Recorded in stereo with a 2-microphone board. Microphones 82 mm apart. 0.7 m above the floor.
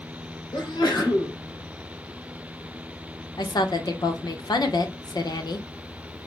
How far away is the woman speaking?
About 0.8 m.